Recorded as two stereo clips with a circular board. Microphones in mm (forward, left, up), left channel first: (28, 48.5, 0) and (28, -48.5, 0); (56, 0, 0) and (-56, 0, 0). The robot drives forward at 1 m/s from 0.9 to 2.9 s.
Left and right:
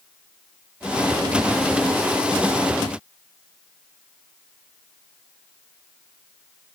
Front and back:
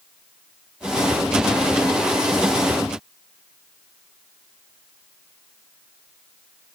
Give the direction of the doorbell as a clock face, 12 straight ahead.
I don't hear a doorbell.